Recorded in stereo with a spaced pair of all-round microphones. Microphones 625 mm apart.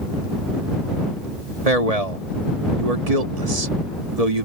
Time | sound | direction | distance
1.6 | a man speaking | 70° right (ahead or behind) | ?